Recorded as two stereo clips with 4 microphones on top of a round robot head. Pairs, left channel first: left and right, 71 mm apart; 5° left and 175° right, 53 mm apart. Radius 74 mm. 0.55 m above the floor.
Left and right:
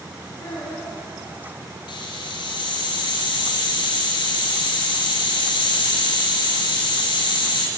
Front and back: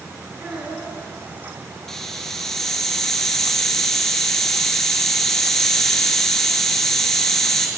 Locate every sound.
0.4 s a child speaking: 135° left, 7 m
1.9 s a hiss: 90° left, 4 m